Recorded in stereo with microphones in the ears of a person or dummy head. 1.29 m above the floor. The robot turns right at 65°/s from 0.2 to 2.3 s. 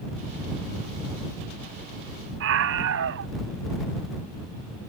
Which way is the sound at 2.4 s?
75° right (ahead or behind).